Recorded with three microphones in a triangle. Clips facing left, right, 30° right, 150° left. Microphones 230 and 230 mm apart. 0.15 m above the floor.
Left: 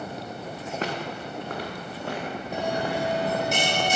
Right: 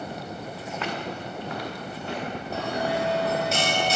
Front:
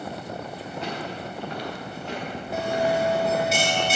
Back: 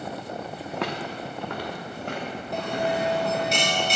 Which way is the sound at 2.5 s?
45° left.